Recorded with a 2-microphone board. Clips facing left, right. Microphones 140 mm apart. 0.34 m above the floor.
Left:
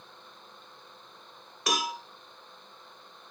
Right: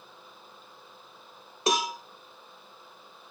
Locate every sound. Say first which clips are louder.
1.7 s a cowbell: right 4 dB; 25° right (ahead or behind), 0.7 m